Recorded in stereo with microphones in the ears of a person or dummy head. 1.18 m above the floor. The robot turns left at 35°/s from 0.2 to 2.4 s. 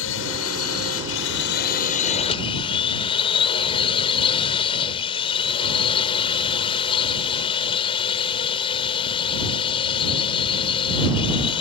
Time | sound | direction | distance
0.0 | a drone | 105° left | ?